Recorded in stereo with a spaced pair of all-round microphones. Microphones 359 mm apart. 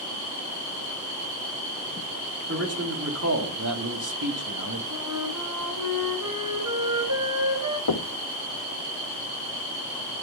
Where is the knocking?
85° left, 0.6 m.